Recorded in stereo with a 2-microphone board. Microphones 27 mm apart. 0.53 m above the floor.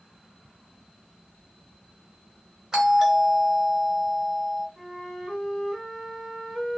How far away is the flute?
About 0.9 m.